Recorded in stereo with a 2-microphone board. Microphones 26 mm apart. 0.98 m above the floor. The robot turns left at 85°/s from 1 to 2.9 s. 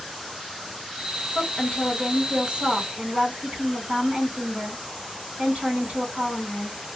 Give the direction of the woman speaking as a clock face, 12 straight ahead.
10 o'clock.